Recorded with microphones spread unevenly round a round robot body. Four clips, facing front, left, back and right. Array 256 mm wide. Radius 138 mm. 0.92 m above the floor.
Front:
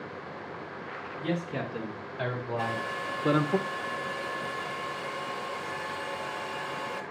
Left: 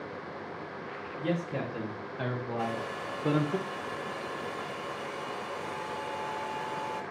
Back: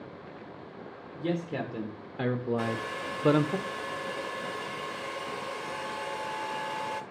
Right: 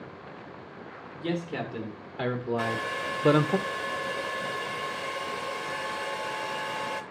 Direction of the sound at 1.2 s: 170° right.